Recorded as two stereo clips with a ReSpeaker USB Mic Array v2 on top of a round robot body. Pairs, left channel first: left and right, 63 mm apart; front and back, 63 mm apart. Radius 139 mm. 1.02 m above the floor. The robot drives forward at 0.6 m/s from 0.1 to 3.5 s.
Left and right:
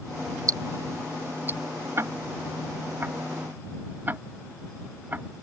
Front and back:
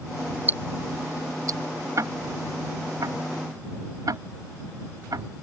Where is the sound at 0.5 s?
115° right; by 1.6 s 150° right.